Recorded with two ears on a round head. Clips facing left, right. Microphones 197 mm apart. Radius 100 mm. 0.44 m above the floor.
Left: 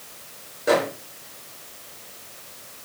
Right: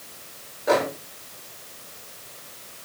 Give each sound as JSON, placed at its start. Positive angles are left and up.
{"t": 0.7, "sound": "a microwave", "side_deg": 30, "distance_m": 5.0}